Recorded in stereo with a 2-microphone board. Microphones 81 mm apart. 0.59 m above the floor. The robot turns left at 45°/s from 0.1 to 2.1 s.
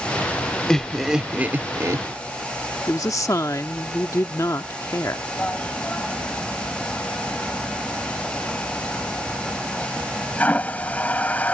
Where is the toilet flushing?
20° left (ahead or behind).